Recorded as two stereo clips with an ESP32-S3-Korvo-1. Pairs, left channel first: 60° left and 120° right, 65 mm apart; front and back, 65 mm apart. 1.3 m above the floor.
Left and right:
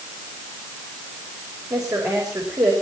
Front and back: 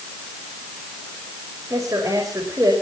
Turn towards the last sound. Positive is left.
turn(degrees=-145)